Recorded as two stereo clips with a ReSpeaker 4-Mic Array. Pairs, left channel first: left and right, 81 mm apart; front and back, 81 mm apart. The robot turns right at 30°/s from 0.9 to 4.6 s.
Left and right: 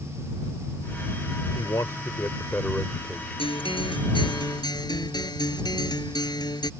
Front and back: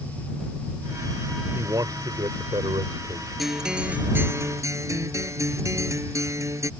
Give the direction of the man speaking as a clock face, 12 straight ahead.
8 o'clock.